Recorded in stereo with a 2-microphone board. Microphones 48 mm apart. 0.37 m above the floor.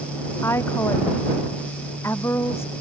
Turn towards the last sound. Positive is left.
turn(degrees=60)  # may be behind; listen again after turning